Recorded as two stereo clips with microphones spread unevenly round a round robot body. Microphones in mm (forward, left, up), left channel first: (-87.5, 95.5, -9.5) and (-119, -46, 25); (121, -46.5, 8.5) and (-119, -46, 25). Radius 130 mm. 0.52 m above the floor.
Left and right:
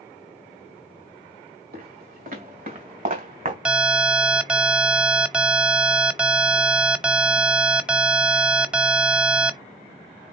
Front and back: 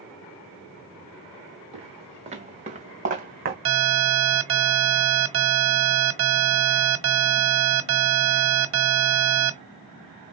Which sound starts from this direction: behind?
An alarm, at 3.6 s.